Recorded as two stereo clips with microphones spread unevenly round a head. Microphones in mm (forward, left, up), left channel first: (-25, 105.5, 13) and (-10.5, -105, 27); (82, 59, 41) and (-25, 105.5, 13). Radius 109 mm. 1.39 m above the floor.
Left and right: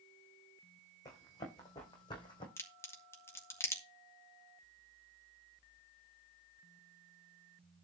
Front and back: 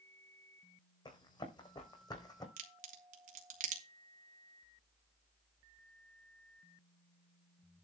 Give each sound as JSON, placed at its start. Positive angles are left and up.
{"t": 1.1, "sound": "running footsteps", "azimuth_deg": 20, "distance_m": 4.5}
{"t": 2.6, "sound": "a crack", "azimuth_deg": 175, "distance_m": 2.0}